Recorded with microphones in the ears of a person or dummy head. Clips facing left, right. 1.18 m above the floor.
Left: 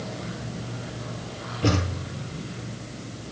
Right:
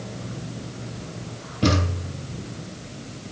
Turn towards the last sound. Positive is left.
turn(degrees=-65)  # may be behind; listen again after turning